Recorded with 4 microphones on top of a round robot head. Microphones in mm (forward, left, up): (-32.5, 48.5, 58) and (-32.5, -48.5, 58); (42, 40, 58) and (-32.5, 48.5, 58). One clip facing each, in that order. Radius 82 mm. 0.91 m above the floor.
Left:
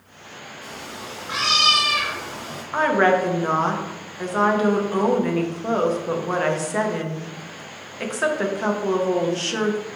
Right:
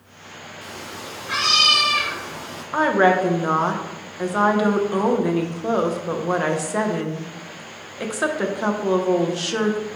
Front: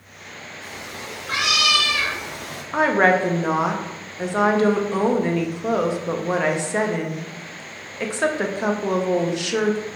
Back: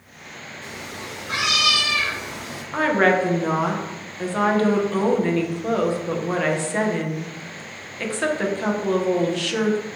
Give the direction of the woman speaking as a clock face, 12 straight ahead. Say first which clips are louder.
Right 1 dB, front 1 dB; 1 o'clock.